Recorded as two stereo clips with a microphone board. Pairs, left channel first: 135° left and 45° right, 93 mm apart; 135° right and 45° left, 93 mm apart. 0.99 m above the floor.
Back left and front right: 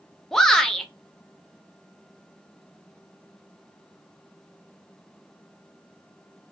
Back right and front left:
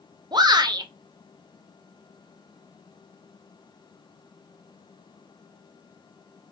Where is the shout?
55° left, 0.6 m.